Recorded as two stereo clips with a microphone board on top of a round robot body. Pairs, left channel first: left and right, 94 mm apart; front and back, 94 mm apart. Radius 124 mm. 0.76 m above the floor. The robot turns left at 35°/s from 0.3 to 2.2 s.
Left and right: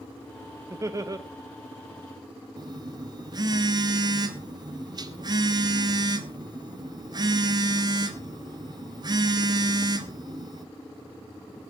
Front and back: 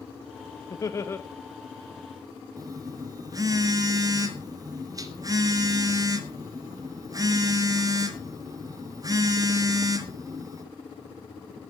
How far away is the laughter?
About 1.1 m.